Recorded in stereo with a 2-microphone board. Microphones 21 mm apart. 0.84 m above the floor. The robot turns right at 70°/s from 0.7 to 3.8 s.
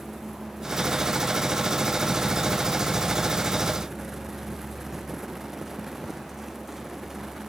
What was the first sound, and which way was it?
Only background noise.